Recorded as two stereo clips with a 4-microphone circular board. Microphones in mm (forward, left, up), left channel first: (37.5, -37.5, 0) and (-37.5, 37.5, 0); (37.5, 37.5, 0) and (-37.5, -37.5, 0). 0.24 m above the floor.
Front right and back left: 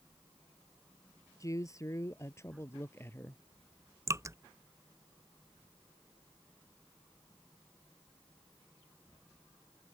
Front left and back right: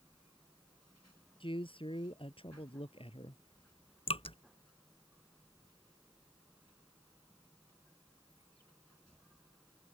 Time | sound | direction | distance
1.4 | a man speaking | 15° left | ?
4.1 | dripping | 75° left | ?